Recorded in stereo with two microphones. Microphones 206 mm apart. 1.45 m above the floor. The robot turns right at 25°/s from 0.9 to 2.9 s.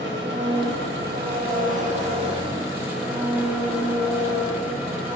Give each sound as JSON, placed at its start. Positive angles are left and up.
{"t": 0.0, "sound": "an engine running", "azimuth_deg": -60, "distance_m": 1.7}